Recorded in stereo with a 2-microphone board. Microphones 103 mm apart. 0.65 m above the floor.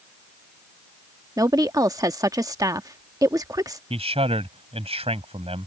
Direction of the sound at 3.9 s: 80° right.